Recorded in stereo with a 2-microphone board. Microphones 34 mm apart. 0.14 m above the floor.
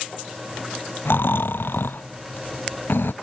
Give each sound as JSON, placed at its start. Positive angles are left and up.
{"t": 1.1, "sound": "snoring", "side_deg": 80}